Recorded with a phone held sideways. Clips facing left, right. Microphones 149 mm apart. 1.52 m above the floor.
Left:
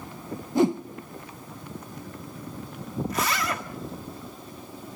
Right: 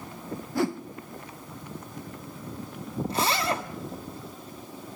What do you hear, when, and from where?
0.6 s a whoosh: 20° left (ahead or behind), 0.6 m
3.1 s a zipper: 30° right (ahead or behind), 1.5 m